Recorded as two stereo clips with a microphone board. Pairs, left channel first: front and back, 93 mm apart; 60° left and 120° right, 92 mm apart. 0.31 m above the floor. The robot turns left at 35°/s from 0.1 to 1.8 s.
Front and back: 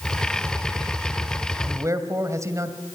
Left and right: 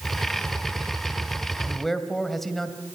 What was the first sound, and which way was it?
A man speaking, 150° left.